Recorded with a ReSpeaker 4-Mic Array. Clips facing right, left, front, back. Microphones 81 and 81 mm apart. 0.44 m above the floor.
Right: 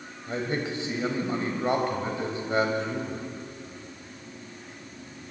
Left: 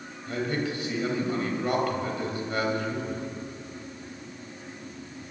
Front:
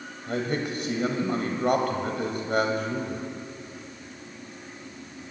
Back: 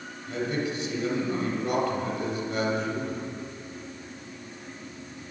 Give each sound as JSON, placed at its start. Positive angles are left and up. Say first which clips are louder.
{"t": 0.3, "sound": "a man speaking", "louder": "left 1 dB, front 1 dB", "azimuth_deg": -25, "distance_m": 2.5}